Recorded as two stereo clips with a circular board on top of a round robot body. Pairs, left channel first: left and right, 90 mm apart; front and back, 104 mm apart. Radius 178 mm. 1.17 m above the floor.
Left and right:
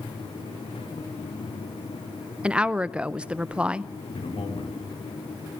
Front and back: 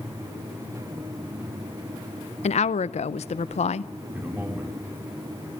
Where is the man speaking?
105° left, 4.5 m.